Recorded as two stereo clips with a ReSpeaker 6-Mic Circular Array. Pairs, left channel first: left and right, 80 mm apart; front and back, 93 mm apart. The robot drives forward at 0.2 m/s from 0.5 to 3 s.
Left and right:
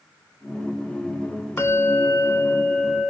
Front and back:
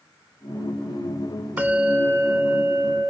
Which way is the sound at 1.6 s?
120° left.